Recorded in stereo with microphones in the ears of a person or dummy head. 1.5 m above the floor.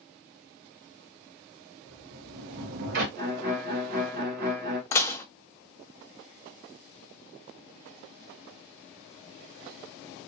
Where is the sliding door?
55° right (ahead or behind), 0.7 m.